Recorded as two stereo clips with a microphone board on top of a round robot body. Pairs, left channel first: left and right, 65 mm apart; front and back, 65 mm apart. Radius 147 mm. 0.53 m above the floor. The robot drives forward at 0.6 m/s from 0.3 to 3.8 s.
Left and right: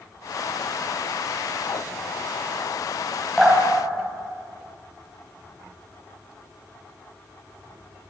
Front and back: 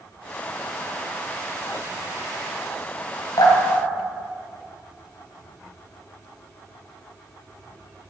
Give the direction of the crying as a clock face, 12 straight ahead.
No crying in this recording.